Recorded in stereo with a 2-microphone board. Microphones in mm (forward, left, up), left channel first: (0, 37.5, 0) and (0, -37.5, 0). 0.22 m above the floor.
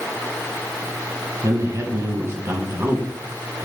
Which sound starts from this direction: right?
A man speaking, at 1.4 s.